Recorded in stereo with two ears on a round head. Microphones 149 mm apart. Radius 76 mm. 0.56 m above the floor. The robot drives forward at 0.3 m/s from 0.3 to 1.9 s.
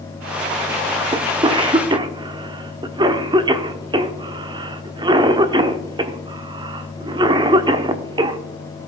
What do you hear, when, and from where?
1.1 s a cough: 30° right (ahead or behind), 0.8 m; by 8.4 s 25° right (ahead or behind), 0.9 m